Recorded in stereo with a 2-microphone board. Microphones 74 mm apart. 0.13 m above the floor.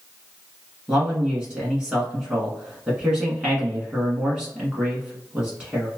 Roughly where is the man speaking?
Centre.